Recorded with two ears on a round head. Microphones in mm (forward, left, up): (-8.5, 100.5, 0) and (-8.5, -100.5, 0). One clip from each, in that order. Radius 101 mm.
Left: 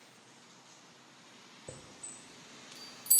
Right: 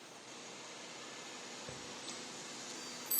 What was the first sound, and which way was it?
A chime, 45° left (ahead or behind).